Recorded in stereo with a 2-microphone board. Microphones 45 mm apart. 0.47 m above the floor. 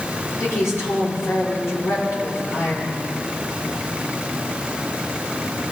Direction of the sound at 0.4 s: 85° left.